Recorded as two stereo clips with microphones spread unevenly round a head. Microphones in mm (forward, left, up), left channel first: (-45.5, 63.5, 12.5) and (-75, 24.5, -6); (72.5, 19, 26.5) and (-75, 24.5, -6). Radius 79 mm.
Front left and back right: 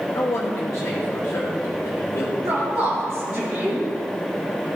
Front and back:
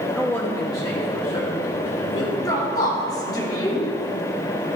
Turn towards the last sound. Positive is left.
turn(degrees=-70)